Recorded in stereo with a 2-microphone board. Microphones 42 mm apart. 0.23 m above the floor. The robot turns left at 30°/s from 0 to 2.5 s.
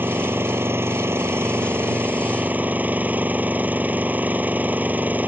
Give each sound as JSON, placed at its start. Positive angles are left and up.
{"t": 0.0, "sound": "an engine running", "azimuth_deg": -60}